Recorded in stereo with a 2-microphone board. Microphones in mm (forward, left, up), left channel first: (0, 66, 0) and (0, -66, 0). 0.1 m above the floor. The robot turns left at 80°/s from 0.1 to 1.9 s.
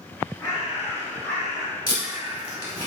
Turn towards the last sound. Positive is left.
turn(degrees=25)  # may be behind; listen again after turning